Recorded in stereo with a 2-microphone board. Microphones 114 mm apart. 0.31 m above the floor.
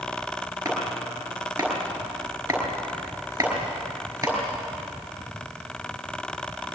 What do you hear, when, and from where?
0.7 s chopping: 25° right (ahead or behind), 5.5 m